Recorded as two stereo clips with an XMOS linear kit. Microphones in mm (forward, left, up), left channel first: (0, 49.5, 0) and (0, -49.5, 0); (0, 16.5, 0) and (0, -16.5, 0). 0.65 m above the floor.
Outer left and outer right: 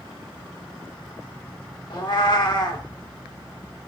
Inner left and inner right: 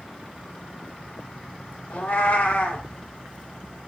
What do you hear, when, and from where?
1.9 s a cat meowing: 45° left (ahead or behind), 0.5 m